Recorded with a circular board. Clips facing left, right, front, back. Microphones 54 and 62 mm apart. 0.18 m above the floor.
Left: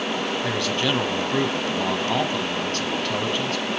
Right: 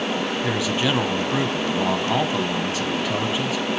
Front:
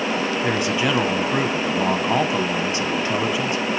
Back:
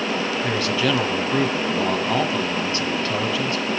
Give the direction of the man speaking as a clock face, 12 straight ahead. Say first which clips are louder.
Right 2 dB, even; 1 o'clock.